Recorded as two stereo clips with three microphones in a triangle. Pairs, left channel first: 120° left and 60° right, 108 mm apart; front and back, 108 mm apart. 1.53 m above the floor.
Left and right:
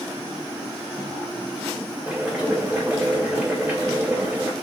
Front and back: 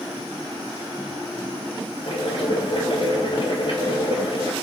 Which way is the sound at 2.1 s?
15° left.